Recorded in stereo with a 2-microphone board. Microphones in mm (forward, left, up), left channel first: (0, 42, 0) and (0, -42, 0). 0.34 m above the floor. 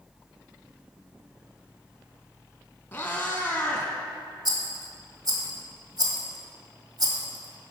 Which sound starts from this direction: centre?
A cat meowing, at 2.9 s.